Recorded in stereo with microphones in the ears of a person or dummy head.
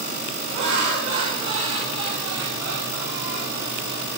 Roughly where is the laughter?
Right.